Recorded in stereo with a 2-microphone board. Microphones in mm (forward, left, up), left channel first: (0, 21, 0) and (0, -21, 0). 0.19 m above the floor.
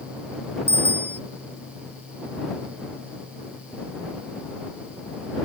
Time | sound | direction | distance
0.7 | a bicycle bell | 80° right | ?